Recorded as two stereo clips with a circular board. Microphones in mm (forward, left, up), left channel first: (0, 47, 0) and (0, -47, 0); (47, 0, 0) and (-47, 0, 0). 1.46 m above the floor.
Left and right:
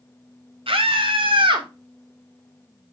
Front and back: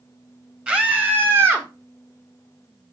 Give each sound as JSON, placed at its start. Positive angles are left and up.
{"t": 0.7, "sound": "a scream", "azimuth_deg": -100, "distance_m": 3.5}